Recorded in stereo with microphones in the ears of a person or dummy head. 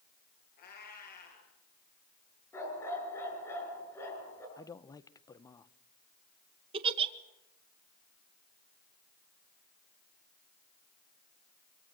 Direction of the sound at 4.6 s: 20° left (ahead or behind).